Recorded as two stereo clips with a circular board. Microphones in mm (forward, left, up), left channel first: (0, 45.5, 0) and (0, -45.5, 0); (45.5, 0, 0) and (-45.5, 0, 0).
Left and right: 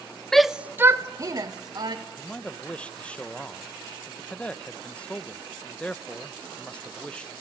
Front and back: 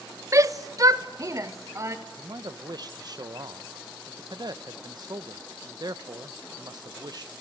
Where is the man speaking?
165° left, 0.9 m.